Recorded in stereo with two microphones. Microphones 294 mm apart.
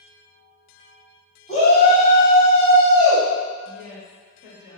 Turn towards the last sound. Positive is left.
turn(degrees=-5)  # may be behind; listen again after turning